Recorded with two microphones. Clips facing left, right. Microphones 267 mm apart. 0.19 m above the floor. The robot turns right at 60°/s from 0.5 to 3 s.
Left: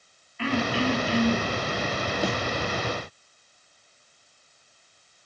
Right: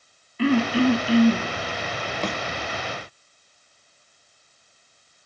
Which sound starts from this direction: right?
Throat clearing, at 0.4 s.